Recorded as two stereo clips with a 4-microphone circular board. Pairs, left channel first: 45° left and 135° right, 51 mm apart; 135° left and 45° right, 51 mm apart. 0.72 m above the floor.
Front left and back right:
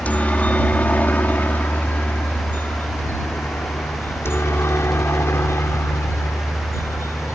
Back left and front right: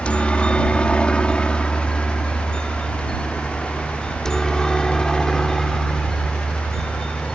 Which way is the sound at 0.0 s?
85° left.